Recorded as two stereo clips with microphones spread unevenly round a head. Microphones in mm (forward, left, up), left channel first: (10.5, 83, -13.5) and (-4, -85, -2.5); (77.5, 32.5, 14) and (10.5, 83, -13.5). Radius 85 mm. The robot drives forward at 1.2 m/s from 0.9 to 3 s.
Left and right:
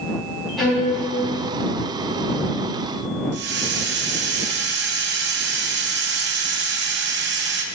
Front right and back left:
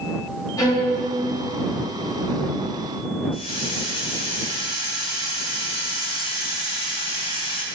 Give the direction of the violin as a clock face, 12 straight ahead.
12 o'clock.